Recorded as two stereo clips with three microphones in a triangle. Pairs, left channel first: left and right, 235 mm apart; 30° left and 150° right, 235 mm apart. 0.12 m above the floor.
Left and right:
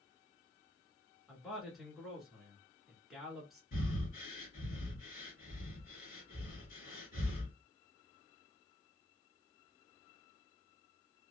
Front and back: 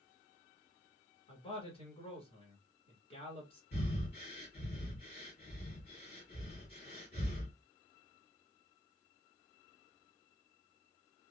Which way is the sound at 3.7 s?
55° left.